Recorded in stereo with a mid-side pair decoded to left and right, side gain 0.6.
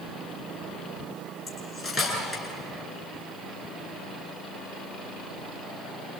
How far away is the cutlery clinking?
About 9 m.